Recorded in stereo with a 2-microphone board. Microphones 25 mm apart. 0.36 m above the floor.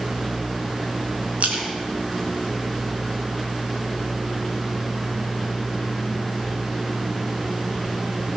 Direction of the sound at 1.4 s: 65° right (ahead or behind).